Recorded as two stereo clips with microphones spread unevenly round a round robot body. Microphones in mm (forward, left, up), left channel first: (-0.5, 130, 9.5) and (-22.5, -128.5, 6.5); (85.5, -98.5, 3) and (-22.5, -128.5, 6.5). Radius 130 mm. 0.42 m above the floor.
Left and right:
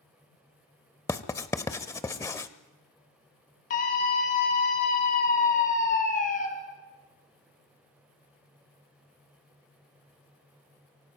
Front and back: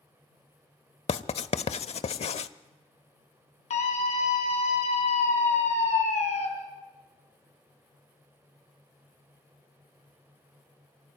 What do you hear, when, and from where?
1.1 s writing: 5° left, 0.7 m
3.7 s a scream: 25° left, 3 m